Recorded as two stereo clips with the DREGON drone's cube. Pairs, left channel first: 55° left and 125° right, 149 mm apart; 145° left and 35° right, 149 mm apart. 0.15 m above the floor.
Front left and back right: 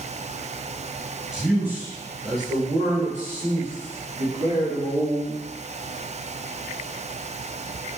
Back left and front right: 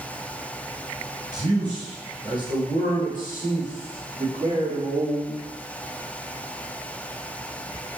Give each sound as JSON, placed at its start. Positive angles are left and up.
{"t": 1.3, "sound": "a man speaking", "azimuth_deg": -40, "distance_m": 1.4}